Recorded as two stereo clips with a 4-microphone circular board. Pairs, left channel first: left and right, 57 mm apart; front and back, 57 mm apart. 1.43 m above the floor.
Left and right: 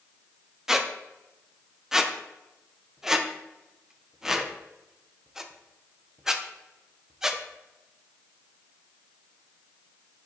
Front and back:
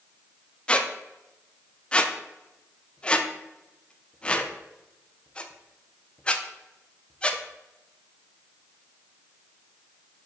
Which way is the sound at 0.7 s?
25° right.